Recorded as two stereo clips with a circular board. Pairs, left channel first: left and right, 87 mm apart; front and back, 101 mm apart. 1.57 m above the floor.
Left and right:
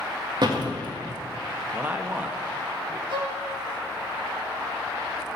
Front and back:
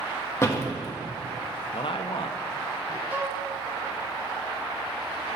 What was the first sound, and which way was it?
A door slam, 60° right.